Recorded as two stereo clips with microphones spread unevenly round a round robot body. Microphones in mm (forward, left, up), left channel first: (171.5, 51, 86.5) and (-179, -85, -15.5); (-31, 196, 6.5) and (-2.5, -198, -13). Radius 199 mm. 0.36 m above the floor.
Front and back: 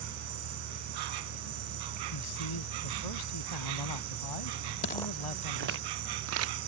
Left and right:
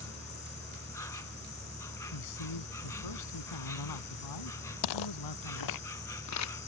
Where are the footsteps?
65° left; by 6.6 s 145° left.